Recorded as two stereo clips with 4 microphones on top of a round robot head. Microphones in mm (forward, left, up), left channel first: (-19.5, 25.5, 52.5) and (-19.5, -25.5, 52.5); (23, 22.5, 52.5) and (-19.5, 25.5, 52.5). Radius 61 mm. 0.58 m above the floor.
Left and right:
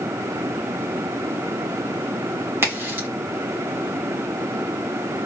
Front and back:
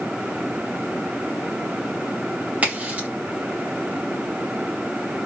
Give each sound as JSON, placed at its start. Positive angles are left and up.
{"t": 2.6, "sound": "a crack", "azimuth_deg": -125, "distance_m": 2.0}